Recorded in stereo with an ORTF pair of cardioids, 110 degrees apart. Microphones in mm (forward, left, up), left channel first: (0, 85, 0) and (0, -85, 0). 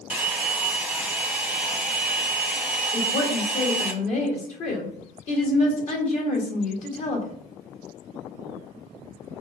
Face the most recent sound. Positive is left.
turn(degrees=50)